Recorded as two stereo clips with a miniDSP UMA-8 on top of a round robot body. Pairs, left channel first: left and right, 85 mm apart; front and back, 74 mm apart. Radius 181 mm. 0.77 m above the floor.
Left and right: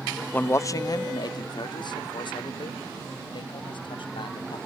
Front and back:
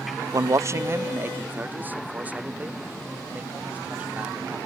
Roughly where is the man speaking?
Behind left.